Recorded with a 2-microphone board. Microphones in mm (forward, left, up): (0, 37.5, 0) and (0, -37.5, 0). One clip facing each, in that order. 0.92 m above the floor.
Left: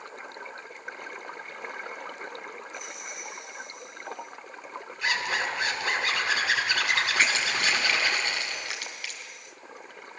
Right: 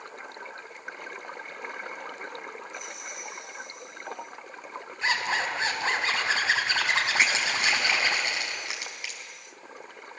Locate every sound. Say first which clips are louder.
5.0 s a zipper: right 1 dB; 30° right (ahead or behind), 4.5 m
7.2 s crushing: even; 20° right (ahead or behind), 4.5 m